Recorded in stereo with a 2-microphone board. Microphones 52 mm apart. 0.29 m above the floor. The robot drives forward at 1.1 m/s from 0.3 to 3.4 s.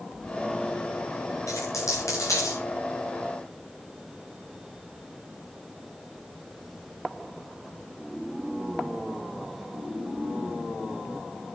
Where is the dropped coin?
85° left, 6.5 m; by 2.6 s 80° left, 6.5 m.